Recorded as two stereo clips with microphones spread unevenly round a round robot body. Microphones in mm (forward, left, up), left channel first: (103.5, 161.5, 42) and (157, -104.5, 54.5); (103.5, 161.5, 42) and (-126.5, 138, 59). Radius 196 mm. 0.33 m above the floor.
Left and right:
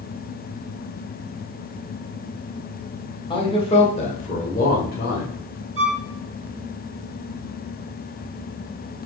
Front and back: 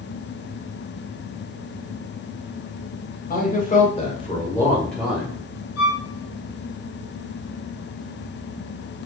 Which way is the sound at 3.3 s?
35° left.